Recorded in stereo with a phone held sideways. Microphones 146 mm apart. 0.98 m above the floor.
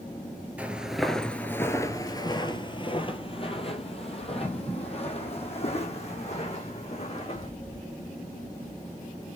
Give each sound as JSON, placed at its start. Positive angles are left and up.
{"t": 0.6, "sound": "footsteps", "side_deg": -10, "distance_m": 1.0}